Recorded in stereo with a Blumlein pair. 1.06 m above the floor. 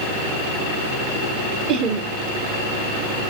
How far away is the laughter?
About 1.4 m.